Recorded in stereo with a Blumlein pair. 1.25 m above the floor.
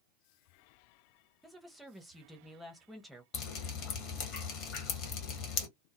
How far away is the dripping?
About 1.2 m.